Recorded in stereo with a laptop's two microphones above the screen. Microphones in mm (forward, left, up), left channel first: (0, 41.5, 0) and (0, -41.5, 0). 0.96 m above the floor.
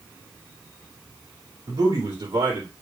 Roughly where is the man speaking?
Right.